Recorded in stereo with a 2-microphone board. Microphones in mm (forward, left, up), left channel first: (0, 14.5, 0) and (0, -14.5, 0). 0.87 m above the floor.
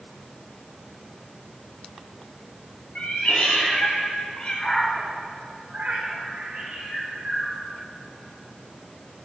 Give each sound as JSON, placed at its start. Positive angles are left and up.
{"t": 3.0, "sound": "a cat meowing", "side_deg": 50, "distance_m": 2.0}